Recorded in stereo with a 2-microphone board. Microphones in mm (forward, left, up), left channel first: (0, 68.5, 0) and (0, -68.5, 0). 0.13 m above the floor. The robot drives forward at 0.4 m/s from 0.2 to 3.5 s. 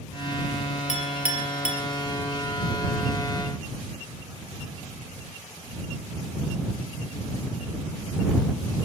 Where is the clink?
60° left (ahead or behind), 2.0 m; by 1.8 s 55° left (ahead or behind), 2 m.